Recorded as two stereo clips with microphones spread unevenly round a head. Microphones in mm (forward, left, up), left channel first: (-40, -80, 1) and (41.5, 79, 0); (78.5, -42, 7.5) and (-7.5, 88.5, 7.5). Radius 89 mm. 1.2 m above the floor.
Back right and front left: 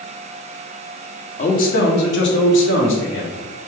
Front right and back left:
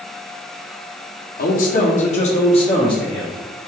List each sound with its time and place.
1.4 s a man speaking: 70° right, 0.8 m; by 3.3 s 125° right, 1.4 m